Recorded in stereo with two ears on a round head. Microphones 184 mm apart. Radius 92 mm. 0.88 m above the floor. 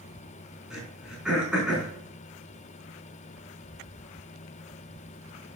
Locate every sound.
0.7 s throat clearing: 5° right (ahead or behind), 4.5 m